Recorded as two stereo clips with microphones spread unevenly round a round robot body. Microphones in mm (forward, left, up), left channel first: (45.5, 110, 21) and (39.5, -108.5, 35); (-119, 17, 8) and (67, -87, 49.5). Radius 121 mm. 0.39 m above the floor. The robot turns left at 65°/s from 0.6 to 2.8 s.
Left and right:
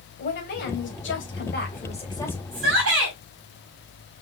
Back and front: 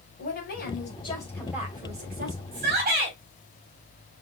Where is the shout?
60° right, 2.5 m; by 3.1 s 80° right, 2.5 m.